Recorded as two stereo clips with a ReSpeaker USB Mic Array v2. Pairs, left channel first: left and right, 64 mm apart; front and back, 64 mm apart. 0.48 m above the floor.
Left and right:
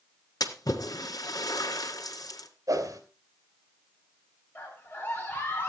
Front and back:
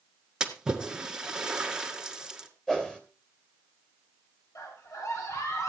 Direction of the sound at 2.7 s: 80° right.